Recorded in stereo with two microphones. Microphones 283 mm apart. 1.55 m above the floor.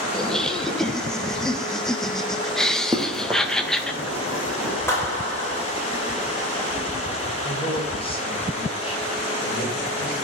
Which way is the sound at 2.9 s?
15° right (ahead or behind).